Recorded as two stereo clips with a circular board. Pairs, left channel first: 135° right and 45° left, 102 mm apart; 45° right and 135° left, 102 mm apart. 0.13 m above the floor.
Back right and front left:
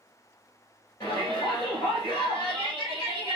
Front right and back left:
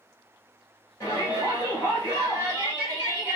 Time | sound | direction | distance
1.0 | a shout | 100° right | 1.9 m